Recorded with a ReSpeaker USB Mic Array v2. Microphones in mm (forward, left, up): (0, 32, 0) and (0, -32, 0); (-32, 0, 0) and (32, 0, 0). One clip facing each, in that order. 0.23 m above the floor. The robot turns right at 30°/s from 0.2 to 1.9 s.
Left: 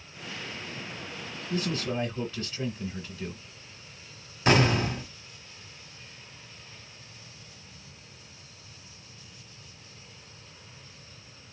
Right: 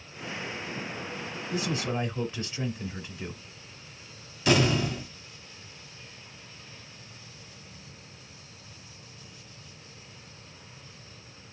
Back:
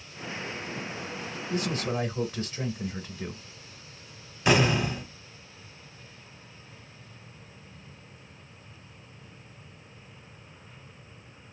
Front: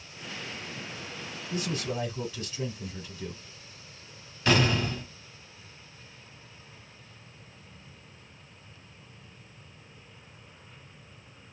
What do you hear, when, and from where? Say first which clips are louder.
1.5 s a man speaking: even, back 3 dB; 165° right, 1.4 m; by 3.4 s 155° right, 1.4 m
4.5 s an explosion: left 1 dB, back 2 dB; 115° left, 1.3 m